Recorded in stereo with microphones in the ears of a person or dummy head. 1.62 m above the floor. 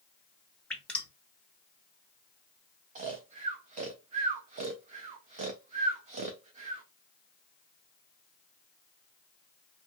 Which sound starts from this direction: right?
Snoring, at 3.0 s.